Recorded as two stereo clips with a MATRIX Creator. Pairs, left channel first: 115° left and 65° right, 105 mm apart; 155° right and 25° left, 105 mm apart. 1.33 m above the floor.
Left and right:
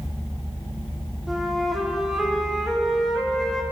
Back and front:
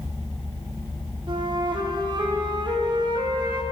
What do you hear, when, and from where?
1.3 s a flute: 20° left, 0.6 m